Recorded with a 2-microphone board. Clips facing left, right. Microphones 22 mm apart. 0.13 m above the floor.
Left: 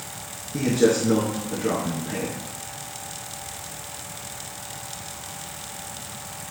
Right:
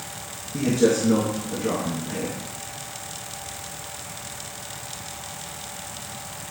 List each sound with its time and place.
0.5 s a man speaking: 25° left (ahead or behind), 1.6 m